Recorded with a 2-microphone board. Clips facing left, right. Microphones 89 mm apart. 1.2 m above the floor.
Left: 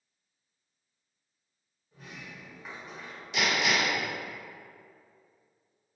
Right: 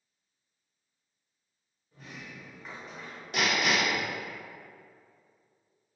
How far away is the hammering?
About 0.8 m.